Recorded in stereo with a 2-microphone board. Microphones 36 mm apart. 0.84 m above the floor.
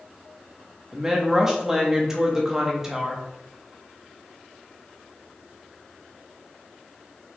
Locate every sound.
0.9 s a woman speaking: 15° right (ahead or behind), 0.9 m